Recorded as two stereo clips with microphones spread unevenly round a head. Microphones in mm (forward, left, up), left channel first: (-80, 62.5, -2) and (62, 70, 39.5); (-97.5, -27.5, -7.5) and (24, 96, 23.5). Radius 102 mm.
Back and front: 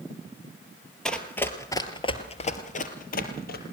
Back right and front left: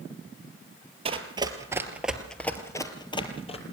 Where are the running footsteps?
85° left, 2.5 m; by 3.6 s 170° left, 3 m.